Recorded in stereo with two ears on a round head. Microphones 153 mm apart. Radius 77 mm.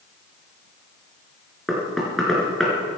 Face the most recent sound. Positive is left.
turn(degrees=0)  # may be behind; listen again after turning